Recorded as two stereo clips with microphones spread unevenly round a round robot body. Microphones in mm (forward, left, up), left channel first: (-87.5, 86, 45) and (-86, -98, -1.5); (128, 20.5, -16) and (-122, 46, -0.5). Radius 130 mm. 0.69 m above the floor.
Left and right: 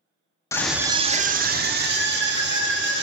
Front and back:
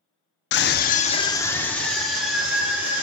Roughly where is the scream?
Ahead.